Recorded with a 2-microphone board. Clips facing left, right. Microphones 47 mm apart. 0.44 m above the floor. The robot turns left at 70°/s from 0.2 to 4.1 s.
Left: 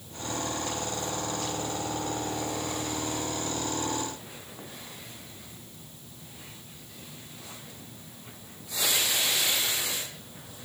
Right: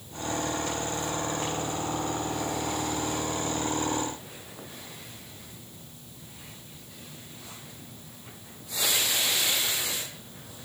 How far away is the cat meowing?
No cat meowing in this recording.